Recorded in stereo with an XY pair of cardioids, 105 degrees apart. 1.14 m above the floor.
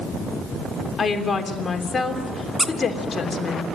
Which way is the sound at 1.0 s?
35° left.